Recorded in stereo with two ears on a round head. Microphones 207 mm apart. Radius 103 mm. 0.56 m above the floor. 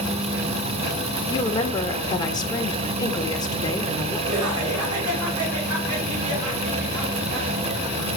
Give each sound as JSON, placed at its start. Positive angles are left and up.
{"t": 1.3, "sound": "a woman speaking", "side_deg": 20, "distance_m": 1.5}
{"t": 4.3, "sound": "laughter", "side_deg": -70, "distance_m": 4.5}